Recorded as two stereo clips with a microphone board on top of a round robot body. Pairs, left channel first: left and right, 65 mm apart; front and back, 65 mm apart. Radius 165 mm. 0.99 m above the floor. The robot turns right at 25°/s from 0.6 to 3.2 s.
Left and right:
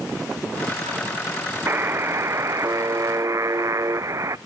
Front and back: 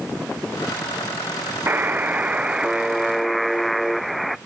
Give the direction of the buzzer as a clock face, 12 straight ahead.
4 o'clock.